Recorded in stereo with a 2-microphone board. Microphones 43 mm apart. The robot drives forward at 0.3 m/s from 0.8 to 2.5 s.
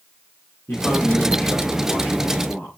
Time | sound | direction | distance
0.7 | a man speaking | 50° left (ahead or behind) | 6.5 m